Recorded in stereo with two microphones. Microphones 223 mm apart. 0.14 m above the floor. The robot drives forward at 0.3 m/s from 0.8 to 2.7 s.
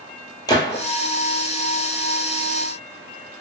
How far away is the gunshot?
About 0.8 m.